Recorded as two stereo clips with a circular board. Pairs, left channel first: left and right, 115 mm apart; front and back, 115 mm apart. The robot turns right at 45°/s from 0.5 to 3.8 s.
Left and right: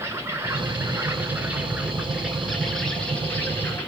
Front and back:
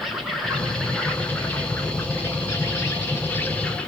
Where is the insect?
90° right, 0.8 m; by 3.9 s 60° left, 0.8 m.